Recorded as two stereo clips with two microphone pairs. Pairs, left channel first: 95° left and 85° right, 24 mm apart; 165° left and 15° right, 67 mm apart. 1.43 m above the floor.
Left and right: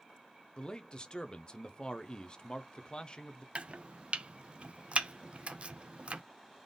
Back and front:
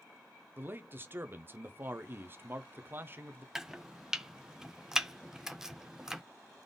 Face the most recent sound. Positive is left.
turn(degrees=-100)